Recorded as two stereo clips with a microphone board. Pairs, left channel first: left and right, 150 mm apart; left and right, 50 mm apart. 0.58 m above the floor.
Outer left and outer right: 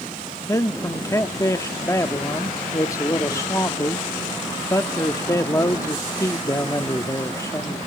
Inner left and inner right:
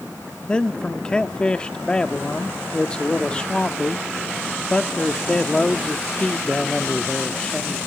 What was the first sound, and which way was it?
A man speaking, 20° left (ahead or behind).